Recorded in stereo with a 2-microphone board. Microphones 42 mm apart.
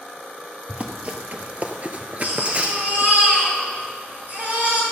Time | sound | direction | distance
0.7 | running footsteps | 35° right (ahead or behind) | 1.3 m
2.2 | a baby crying | 50° right (ahead or behind) | 3 m